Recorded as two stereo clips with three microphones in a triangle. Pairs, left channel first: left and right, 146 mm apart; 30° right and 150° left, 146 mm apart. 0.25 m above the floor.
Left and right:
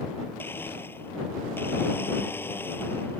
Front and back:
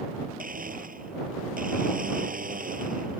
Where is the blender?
165° left.